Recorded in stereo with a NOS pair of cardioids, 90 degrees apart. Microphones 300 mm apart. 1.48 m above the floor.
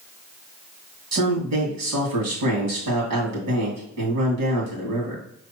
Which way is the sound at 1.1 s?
65° right.